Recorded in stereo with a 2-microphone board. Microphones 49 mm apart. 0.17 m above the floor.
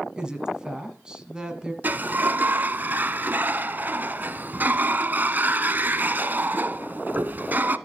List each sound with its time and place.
0.2 s a woman speaking: 15° right (ahead or behind), 1.6 m
1.8 s a sliding door: 40° right (ahead or behind), 0.6 m